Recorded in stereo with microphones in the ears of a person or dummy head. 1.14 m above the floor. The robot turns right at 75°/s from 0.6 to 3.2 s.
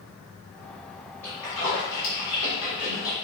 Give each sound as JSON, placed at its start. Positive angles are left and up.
{"t": 1.2, "sound": "a splash", "side_deg": 10, "distance_m": 1.2}